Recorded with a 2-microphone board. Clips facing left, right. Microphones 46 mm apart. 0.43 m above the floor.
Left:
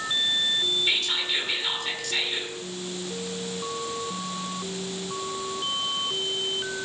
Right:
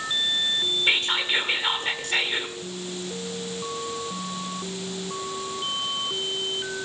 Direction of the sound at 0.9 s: 35° right (ahead or behind).